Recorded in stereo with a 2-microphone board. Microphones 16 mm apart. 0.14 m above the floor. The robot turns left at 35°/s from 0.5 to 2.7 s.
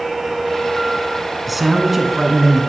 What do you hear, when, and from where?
1.5 s a man speaking: 5° right (ahead or behind), 1.1 m; by 2.6 s 15° right (ahead or behind), 1.1 m